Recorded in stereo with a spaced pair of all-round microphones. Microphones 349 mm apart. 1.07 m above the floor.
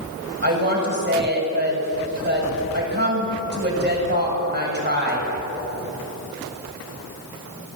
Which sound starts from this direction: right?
A woman speaking, at 0.4 s.